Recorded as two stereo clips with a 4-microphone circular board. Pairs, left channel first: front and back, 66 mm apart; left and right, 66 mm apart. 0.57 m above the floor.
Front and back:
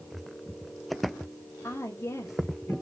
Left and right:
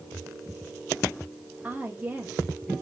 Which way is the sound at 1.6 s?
20° right.